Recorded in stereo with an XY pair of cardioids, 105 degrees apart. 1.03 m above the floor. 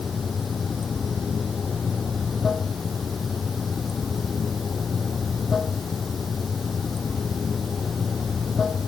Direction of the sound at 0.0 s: 35° left.